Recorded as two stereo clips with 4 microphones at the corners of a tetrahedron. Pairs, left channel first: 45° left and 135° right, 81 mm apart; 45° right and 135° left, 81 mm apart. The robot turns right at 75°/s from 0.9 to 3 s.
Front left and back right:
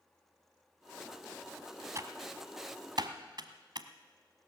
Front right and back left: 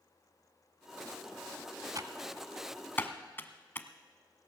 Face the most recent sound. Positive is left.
turn(degrees=-110)